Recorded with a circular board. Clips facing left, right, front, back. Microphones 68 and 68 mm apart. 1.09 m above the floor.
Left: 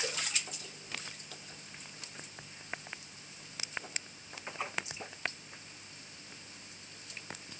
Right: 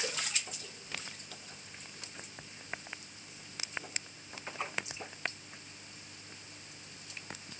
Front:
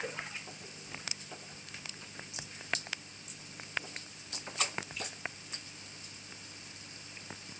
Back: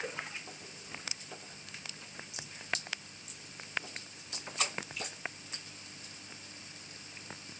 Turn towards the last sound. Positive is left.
No sound to turn to.